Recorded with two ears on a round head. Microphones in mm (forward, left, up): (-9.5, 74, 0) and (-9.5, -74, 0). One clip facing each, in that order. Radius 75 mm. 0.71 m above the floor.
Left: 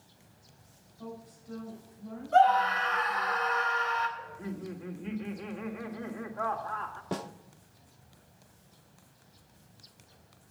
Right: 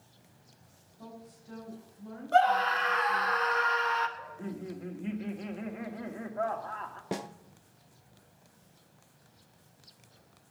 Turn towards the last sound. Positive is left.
turn(degrees=-15)  # may be behind; listen again after turning